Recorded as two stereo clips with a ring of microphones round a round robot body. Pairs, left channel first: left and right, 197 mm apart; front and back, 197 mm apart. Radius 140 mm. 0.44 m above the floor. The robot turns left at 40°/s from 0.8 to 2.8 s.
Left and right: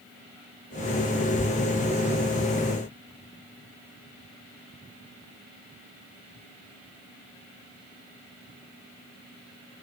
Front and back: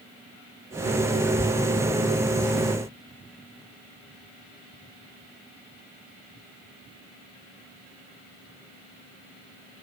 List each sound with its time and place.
Only background noise.